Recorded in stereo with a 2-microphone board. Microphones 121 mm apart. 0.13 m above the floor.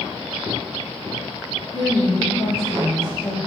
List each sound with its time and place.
1.7 s a woman speaking: 30° left (ahead or behind), 3 m